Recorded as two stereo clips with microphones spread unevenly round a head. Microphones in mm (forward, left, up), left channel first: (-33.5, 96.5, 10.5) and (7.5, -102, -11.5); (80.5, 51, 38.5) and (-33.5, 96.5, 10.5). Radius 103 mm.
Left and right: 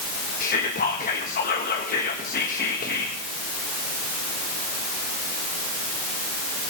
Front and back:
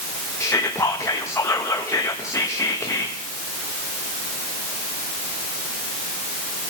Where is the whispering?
50° left, 1.4 m.